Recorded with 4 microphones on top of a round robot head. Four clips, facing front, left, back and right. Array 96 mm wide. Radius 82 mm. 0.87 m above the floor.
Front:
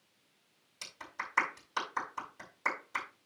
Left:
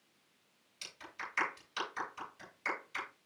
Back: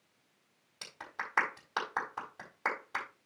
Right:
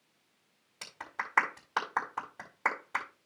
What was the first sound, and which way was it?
A clap, 120° right.